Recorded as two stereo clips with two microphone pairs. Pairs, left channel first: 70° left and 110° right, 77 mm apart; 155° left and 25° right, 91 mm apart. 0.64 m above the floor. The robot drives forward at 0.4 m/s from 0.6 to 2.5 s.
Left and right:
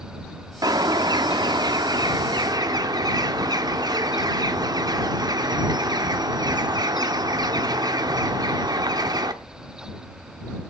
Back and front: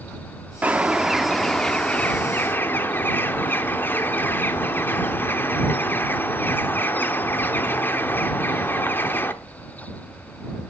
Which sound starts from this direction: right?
A bird, at 0.6 s.